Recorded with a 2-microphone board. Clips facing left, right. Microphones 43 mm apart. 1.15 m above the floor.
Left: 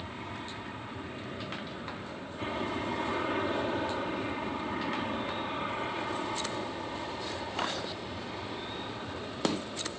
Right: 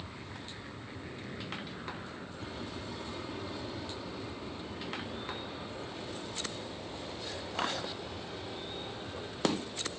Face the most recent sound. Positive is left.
turn(degrees=65)  # may be behind; listen again after turning